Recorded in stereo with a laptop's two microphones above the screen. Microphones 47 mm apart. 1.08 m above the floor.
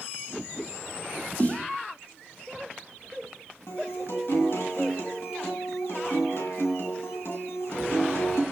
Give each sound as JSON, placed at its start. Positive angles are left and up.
{"t": 1.4, "sound": "a snare drum", "side_deg": 35, "distance_m": 1.0}
{"t": 3.7, "sound": "a guitar", "side_deg": 60, "distance_m": 2.5}